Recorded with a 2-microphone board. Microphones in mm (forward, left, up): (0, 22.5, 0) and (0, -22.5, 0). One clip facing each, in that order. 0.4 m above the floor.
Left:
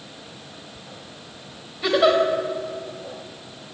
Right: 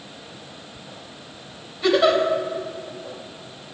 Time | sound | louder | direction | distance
1.8 | a giggle | even | 5° left (ahead or behind) | 1.7 m